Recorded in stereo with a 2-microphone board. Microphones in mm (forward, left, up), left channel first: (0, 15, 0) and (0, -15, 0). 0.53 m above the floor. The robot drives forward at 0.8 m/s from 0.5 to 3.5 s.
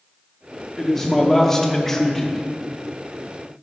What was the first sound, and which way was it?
A man speaking, 10° left (ahead or behind).